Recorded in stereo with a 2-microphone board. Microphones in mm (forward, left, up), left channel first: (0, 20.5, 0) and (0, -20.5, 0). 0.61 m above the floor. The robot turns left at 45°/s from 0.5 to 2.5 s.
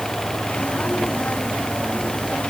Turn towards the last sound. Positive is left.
No sound to turn to.